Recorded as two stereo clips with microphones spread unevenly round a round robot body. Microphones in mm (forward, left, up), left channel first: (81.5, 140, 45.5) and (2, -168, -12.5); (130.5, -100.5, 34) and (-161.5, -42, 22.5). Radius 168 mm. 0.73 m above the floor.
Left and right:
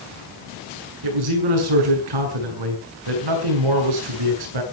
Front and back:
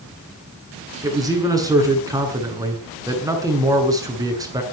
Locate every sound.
1.0 s a man speaking: 115° right, 7 m